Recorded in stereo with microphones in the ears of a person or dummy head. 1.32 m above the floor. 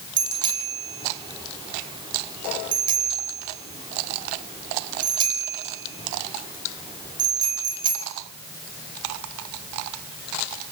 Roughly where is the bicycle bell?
Right.